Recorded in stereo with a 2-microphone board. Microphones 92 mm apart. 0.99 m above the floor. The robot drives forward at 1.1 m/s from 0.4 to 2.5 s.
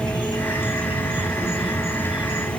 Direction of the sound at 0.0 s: 55° left (ahead or behind).